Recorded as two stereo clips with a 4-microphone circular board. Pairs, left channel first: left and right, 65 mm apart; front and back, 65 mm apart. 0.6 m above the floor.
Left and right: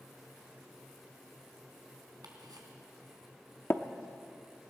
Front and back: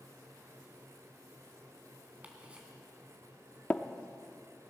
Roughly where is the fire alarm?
No fire alarm in this recording.